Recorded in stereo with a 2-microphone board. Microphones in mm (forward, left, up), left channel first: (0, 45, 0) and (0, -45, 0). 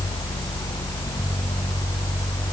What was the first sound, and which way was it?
Only background noise.